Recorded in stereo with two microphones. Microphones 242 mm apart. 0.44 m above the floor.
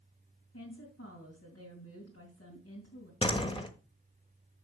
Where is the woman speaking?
70° left (ahead or behind), 3 m.